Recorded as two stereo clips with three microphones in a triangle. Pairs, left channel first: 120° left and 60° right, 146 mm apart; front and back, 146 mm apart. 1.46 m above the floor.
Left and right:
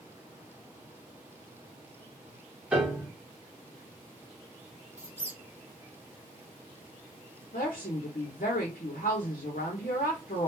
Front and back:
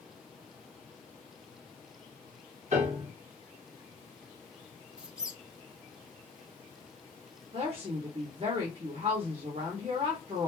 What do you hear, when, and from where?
2.7 s a piano: 145° right, 1.7 m
5.0 s a squeak: 105° right, 0.7 m
7.5 s a woman speaking: 135° left, 1.0 m